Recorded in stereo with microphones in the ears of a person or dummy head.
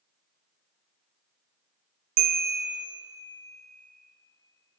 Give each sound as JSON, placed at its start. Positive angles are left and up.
{"t": 2.2, "sound": "a bell", "side_deg": -40, "distance_m": 0.7}